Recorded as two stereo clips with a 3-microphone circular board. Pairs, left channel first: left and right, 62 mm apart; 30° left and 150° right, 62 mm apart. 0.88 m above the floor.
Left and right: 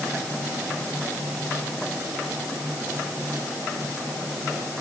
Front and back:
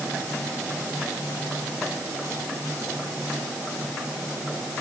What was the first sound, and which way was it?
Only background noise.